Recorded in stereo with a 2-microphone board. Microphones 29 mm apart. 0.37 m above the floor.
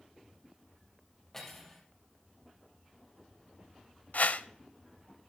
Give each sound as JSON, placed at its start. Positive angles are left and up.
{"t": 1.3, "sound": "cutlery clinking", "side_deg": 15, "distance_m": 5.0}
{"t": 4.1, "sound": "a whoosh", "side_deg": 65, "distance_m": 0.5}